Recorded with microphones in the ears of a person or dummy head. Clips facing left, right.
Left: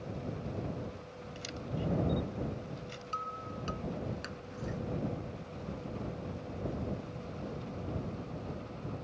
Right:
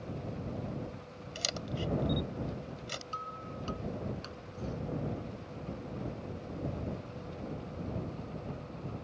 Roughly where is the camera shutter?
Right.